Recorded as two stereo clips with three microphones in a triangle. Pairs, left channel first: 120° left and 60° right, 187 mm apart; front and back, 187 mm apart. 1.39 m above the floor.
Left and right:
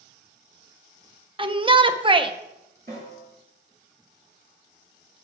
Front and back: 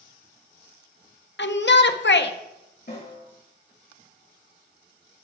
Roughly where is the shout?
Ahead.